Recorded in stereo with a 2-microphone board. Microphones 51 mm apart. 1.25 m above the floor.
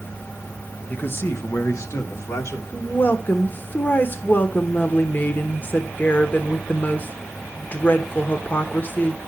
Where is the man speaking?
30° left (ahead or behind), 1.1 m; by 2.6 s 85° left, 3 m.